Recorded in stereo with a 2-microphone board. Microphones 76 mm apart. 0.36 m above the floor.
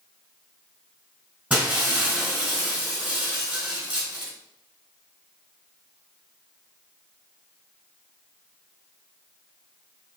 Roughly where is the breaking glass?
Centre.